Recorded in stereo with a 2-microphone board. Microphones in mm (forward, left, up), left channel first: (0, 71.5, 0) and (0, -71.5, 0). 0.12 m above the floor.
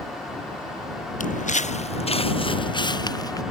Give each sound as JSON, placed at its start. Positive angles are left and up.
{"t": 1.2, "sound": "footsteps", "side_deg": 65}